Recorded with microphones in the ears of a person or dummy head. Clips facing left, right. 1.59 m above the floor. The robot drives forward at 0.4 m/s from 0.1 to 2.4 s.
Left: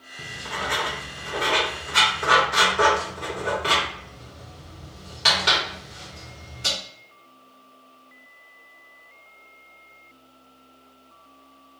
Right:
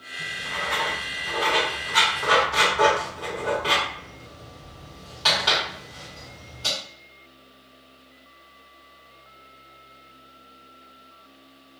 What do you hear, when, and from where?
0.2 s writing: 60° left (ahead or behind), 0.5 m; by 6.7 s 20° left (ahead or behind), 1.2 m